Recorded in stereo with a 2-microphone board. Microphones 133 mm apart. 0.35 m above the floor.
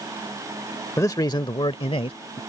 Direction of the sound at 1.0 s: 20° left (ahead or behind).